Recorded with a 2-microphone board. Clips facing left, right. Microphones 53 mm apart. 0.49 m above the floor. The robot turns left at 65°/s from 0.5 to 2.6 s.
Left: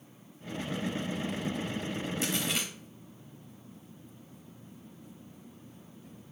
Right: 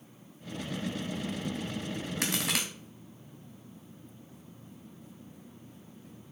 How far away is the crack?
About 2.0 m.